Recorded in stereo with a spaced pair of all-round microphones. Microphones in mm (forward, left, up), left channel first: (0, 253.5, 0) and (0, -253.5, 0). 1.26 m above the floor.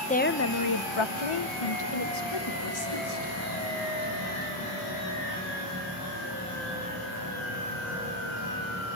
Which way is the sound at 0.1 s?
15° left (ahead or behind).